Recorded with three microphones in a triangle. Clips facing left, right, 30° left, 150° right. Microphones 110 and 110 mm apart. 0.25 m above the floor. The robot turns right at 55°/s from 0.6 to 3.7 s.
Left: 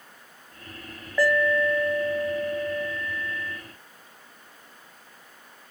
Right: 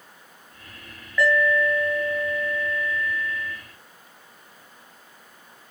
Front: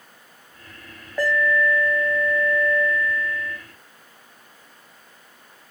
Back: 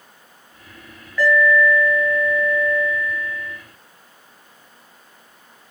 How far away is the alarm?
About 3 m.